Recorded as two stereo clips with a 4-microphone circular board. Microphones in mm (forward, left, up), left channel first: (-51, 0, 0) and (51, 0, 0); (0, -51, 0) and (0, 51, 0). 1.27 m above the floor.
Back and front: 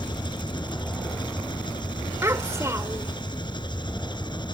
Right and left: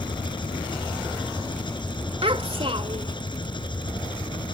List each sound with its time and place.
0.0 s an engine running: 135° right
2.2 s a child speaking: 65° left